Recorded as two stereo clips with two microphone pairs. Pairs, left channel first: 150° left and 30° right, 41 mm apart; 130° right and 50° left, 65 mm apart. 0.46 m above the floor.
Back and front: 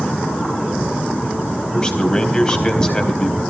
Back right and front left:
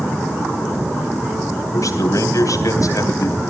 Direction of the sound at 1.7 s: 145° right.